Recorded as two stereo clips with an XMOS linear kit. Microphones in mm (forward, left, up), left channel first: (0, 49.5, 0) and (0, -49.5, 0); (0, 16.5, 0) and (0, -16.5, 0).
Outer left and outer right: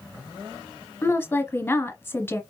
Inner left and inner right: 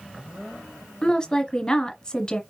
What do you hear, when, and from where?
1.0 s a woman speaking: 25° left (ahead or behind), 1.1 m